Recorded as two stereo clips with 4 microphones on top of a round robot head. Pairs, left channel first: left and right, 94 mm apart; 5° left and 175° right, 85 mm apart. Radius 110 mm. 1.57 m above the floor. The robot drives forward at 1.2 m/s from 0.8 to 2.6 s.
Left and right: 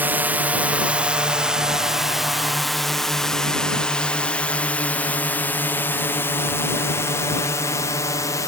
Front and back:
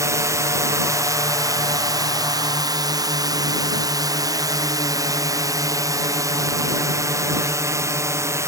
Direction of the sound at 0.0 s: 150° right.